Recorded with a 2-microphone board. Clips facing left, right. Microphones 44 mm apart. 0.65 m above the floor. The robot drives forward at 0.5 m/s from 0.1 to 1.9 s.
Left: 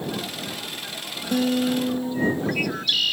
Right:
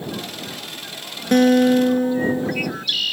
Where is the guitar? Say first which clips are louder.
Right 8 dB; 65° right (ahead or behind); by 2.7 s 60° right (ahead or behind).